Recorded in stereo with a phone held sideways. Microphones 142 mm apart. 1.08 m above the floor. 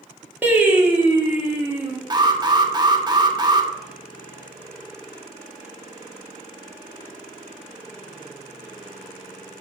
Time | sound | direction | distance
0.4 | singing | 10° right (ahead or behind) | 1.1 m
2.1 | an alarm | 30° right (ahead or behind) | 0.8 m